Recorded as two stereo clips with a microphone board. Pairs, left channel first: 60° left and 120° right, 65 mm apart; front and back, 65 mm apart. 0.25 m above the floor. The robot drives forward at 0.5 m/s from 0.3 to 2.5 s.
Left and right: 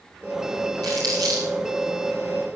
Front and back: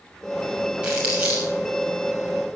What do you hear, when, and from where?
0.8 s crumpling: 105° right, 6 m; by 1.5 s 110° right, 6 m